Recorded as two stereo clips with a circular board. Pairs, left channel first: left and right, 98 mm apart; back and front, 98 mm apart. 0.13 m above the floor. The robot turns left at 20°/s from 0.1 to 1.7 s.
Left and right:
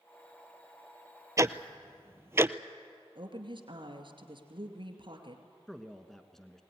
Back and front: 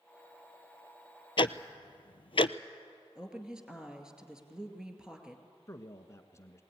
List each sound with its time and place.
1.4 s ticking: 145° right, 0.5 m; by 2.5 s 155° right, 0.5 m
3.1 s a woman speaking: 80° right, 2 m
5.7 s a man speaking: 170° left, 1.1 m